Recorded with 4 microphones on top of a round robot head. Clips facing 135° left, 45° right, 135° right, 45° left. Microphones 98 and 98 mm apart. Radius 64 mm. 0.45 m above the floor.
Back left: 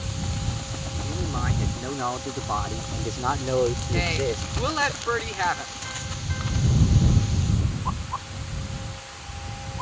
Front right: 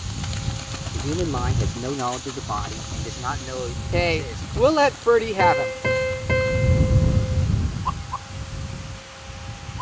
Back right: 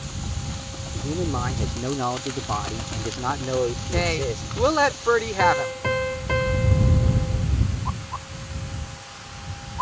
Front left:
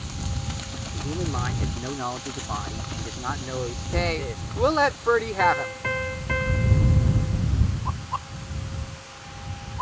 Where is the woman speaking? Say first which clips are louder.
Front right 3 dB, back right 2 dB; 50° right.